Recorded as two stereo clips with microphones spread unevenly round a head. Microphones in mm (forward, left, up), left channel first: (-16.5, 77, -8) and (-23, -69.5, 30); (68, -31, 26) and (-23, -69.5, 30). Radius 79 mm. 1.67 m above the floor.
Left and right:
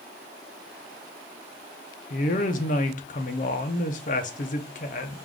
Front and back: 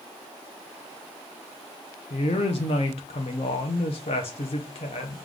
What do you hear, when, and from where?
2.1 s a woman speaking: 45° left, 0.7 m